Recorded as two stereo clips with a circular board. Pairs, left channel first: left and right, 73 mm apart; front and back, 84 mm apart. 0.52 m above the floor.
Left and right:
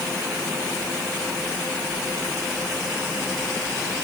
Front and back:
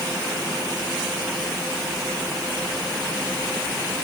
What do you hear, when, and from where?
Only background noise.